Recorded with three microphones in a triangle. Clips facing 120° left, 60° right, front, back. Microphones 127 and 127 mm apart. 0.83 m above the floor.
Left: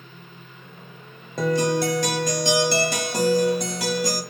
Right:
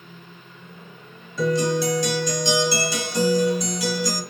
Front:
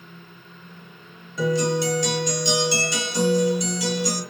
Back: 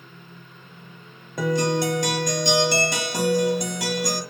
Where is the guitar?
145° left, 0.9 m.